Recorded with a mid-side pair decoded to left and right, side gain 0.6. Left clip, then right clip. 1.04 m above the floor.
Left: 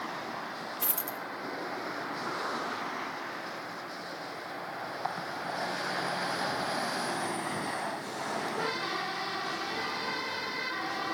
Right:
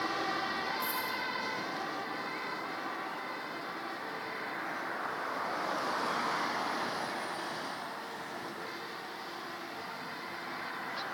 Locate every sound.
0.8 s a dropped coin: 60° left, 1.3 m